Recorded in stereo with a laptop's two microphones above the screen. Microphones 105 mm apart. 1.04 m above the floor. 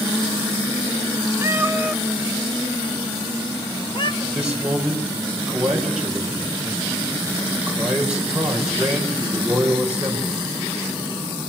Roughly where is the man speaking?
Centre.